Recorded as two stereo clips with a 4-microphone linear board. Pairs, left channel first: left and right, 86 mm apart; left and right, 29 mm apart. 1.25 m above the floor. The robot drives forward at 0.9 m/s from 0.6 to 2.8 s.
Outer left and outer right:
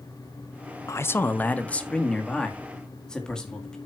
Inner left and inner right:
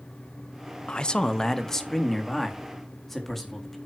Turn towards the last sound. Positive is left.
turn(degrees=10)  # may be behind; listen again after turning